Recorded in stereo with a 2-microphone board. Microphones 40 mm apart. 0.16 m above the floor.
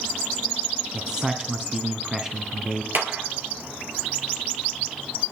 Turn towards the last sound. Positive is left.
turn(degrees=-55)  # may be behind; listen again after turning